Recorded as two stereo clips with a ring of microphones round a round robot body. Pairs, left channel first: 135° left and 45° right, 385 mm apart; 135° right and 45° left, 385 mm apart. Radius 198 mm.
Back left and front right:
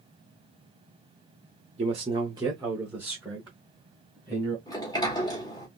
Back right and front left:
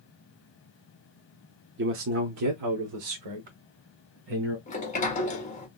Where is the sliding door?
165° right, 1.3 m.